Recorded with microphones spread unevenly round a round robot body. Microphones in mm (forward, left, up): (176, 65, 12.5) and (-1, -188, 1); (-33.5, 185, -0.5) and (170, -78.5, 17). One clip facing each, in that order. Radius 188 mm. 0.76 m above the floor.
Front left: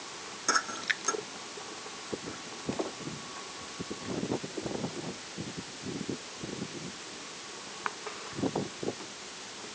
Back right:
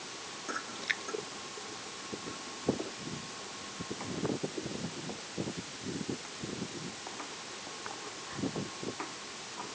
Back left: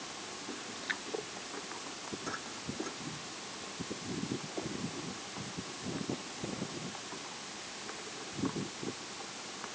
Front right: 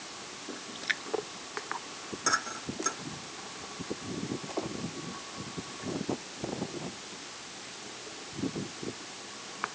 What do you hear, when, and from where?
0.8 s a splash: 10° right